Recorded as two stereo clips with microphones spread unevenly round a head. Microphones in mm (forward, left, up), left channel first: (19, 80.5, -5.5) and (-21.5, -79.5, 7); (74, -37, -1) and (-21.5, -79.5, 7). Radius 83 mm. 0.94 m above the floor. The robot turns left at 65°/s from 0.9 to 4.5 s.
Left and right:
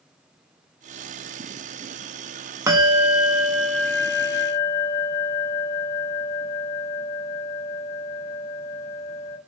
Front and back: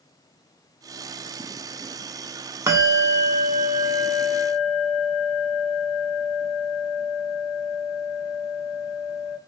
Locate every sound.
2.7 s a bell: 155° right, 0.7 m; by 9.4 s 85° left, 0.7 m